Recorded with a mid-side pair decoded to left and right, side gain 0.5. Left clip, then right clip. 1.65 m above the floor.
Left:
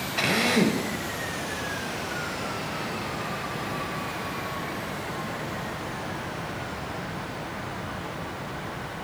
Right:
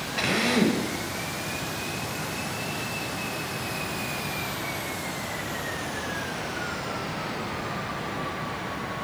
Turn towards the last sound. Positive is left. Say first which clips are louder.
# left 1 dB
turn(degrees=15)